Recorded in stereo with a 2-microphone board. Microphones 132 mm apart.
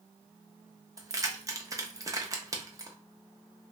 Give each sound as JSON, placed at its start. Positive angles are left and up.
{"t": 1.0, "sound": "keys jangling", "side_deg": -25, "distance_m": 0.6}